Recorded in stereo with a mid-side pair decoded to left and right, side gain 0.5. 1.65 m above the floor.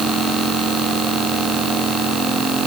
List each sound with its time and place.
Only background noise.